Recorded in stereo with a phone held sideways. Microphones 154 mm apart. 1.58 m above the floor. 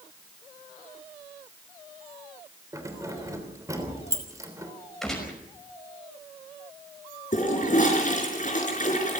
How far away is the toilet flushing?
About 5 m.